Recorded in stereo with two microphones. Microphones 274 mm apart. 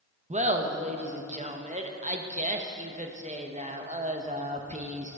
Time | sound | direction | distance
0.3 | laughter | 25° right (ahead or behind) | 0.7 m